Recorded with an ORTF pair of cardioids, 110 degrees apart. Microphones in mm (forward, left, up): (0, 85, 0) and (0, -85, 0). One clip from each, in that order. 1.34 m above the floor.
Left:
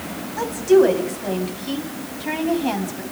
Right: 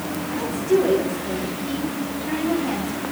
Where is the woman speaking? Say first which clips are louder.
Left 6 dB; 50° left, 8 m.